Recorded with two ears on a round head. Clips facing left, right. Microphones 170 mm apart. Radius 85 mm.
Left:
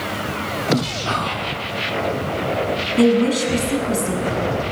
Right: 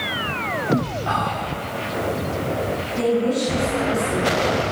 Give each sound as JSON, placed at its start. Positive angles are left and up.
{"t": 1.1, "sound": "whispering", "side_deg": 45, "distance_m": 1.3}
{"t": 3.0, "sound": "a woman speaking", "side_deg": 80, "distance_m": 6.0}